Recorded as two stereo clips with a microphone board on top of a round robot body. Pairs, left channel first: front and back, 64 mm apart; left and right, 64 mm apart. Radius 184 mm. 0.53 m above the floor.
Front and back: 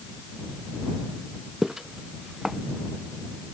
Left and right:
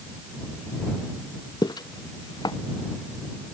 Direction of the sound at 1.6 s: 95° left.